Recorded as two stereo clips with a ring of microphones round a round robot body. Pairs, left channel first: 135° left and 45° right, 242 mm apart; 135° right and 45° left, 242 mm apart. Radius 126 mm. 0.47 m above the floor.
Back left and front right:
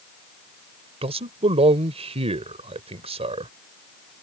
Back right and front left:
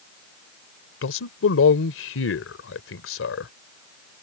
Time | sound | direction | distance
1.0 | a man speaking | 110° right | ?